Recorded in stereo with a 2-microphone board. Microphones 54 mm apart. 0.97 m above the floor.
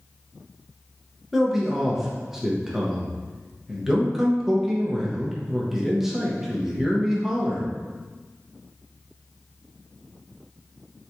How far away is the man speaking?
About 0.6 m.